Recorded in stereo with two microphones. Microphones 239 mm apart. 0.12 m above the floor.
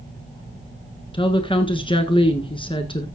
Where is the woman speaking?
20° left (ahead or behind), 1.5 m.